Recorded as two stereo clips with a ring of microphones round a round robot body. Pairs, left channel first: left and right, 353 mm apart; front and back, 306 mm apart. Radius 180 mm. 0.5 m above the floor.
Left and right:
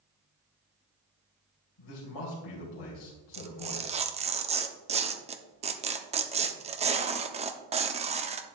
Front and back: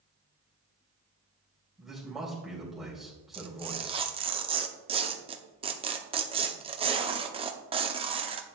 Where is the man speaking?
90° left, 2.5 m.